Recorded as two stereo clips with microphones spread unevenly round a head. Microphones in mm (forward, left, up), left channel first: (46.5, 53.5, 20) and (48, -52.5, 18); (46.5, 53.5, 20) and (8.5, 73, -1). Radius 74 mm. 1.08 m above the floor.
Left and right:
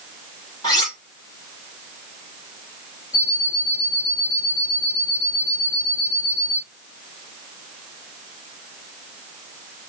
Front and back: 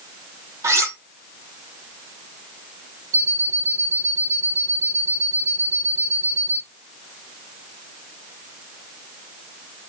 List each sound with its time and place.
0.6 s cutlery clinking: 160° left, 1.2 m
3.1 s an alarm clock: 165° left, 1.9 m